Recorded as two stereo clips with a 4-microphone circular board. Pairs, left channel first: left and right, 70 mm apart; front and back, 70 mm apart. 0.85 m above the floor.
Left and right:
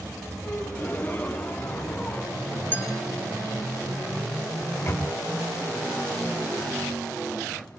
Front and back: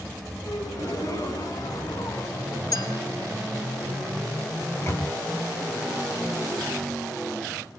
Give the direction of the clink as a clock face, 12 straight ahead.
11 o'clock.